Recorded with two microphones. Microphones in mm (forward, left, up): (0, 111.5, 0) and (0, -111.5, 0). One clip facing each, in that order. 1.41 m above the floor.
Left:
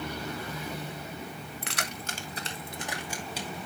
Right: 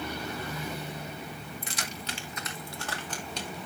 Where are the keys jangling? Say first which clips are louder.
Left 1 dB; 75° left (ahead or behind), 1.5 m; by 3.7 s centre (ahead or behind), 3.5 m.